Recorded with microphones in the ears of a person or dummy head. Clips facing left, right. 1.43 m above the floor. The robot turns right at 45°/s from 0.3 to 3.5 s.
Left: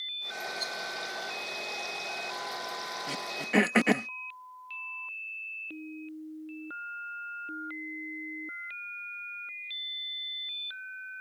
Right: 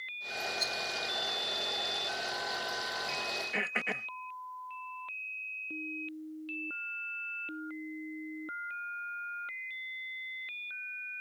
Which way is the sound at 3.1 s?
65° left (ahead or behind).